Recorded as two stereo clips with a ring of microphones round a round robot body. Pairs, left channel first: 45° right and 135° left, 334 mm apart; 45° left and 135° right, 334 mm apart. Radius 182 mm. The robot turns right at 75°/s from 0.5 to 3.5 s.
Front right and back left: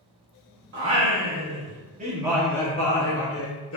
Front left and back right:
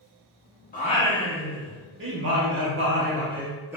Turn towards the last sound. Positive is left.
turn(degrees=-55)